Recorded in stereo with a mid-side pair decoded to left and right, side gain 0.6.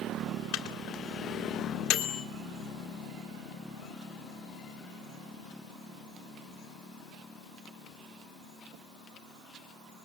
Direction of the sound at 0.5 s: 70° left.